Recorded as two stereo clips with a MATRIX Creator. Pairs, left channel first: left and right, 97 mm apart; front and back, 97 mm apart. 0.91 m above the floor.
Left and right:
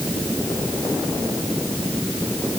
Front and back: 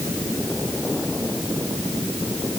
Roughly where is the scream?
I don't hear a scream.